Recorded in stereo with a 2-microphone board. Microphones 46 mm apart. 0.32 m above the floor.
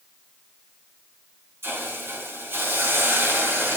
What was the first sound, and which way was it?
A hiss, 60° right (ahead or behind).